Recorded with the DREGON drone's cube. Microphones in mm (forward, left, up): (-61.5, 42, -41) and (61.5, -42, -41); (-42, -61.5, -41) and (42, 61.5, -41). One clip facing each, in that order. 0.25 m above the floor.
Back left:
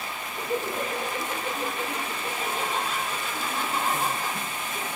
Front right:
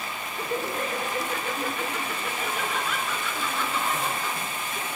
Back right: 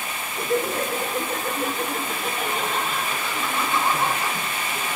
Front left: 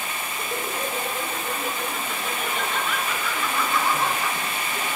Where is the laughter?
145° right, 5 m; by 5.0 s 145° left, 2.5 m.